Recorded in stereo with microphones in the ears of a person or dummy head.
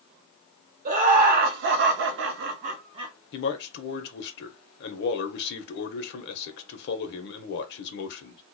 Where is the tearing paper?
No tearing paper in this recording.